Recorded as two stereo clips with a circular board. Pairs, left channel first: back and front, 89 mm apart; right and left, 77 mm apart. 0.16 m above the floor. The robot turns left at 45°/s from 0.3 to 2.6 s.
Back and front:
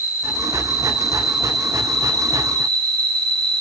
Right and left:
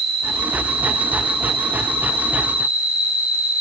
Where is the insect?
130° left, 5.5 m; by 3.6 s 25° left, 5.5 m.